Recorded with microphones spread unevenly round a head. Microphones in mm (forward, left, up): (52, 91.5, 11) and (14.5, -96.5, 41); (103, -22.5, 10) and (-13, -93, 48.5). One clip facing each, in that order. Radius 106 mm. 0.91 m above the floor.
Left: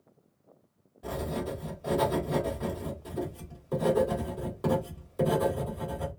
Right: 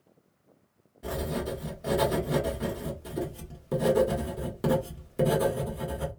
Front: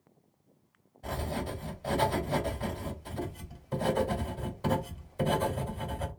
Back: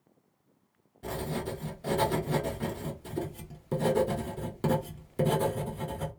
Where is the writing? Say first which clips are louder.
Right 1 dB, back 1 dB; 170° right, 1.4 m.